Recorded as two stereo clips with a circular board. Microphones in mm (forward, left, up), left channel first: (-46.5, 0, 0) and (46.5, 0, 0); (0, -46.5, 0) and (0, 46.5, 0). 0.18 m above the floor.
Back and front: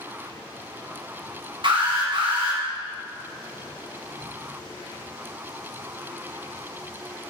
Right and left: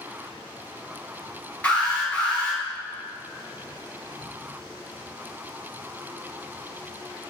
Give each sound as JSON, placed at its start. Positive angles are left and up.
{"t": 1.6, "sound": "an alarm", "azimuth_deg": -15, "distance_m": 3.0}